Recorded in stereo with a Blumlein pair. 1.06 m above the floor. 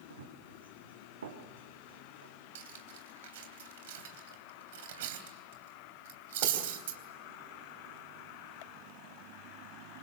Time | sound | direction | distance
0.1 | running footsteps | 70° right | 4 m
2.5 | cutlery clinking | 55° right | 3 m